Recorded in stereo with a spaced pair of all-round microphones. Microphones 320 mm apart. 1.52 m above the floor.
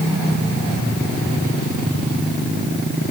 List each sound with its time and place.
Only background noise.